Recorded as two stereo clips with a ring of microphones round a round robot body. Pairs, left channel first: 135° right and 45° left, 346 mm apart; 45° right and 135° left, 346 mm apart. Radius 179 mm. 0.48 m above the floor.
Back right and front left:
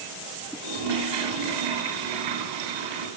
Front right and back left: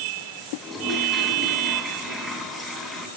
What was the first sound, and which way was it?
A toilet flushing, 45° left.